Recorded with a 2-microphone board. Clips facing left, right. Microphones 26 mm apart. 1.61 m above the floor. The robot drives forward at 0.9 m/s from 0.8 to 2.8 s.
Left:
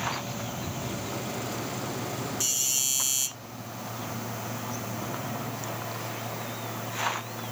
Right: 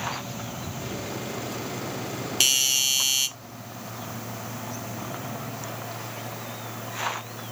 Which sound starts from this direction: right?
A doorbell, at 2.4 s.